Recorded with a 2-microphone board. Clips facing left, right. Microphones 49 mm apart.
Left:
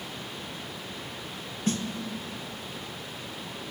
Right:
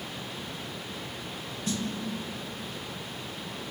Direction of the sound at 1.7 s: 45° left (ahead or behind).